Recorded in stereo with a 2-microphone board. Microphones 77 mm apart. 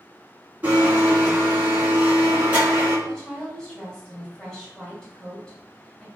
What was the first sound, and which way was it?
A blender, 25° right (ahead or behind).